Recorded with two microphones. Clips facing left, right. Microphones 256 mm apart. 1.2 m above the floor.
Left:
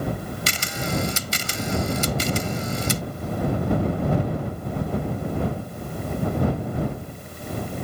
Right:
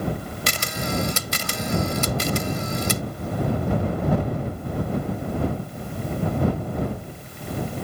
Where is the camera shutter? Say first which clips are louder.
Right 3 dB; 70° right (ahead or behind).